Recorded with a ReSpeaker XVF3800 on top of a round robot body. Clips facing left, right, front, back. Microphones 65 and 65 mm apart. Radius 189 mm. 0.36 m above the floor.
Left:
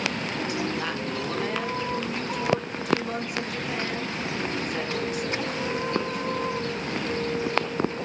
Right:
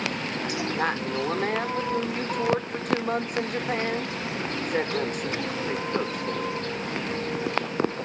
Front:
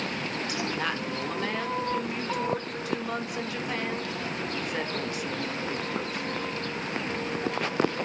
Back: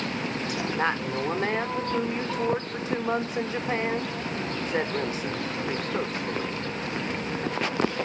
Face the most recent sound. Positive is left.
turn(degrees=-125)